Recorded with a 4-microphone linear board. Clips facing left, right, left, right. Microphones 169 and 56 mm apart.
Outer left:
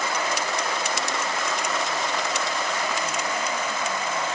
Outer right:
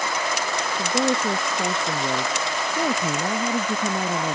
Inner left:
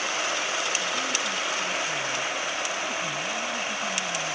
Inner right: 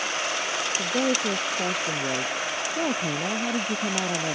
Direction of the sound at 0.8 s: 70° right (ahead or behind).